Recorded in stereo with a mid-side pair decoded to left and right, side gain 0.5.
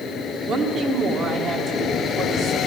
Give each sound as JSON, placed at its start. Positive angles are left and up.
{"t": 0.5, "sound": "a woman speaking", "azimuth_deg": -60, "distance_m": 1.6}